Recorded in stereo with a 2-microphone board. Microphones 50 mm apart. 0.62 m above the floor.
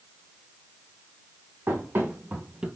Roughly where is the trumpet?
No trumpet in this recording.